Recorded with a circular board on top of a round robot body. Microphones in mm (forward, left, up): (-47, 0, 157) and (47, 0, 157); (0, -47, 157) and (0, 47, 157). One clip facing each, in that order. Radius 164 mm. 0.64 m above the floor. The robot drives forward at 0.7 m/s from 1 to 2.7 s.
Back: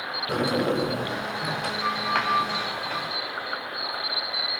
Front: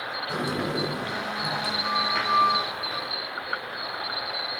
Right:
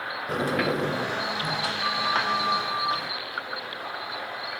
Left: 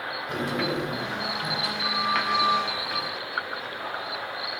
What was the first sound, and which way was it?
A sliding door, 140° right.